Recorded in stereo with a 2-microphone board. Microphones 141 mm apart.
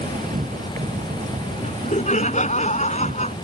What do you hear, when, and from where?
0.0 s an insect: 65° right (ahead or behind)
1.6 s laughter: 55° left (ahead or behind)